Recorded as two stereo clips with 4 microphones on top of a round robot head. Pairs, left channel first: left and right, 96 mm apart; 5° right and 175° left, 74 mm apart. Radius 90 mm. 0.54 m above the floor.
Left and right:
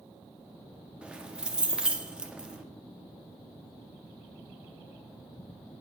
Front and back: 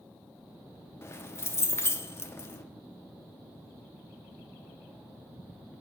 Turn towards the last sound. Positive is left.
turn(degrees=-15)